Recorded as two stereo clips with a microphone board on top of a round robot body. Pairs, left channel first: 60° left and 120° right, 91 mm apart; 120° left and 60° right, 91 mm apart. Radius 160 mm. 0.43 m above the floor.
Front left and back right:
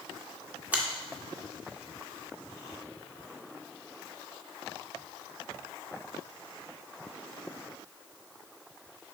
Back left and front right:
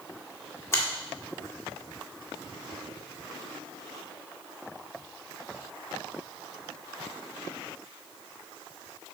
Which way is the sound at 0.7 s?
170° left.